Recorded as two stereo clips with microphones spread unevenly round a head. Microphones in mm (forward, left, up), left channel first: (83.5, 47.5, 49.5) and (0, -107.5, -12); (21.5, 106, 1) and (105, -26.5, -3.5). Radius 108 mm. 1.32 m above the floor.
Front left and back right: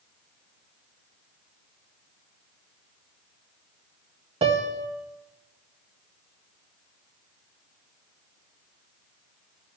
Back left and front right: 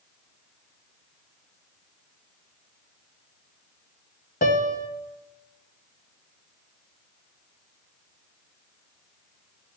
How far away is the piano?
About 0.7 m.